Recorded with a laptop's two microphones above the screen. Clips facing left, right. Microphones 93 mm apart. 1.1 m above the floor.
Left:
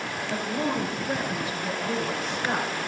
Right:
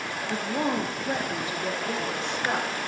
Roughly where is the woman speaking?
Right.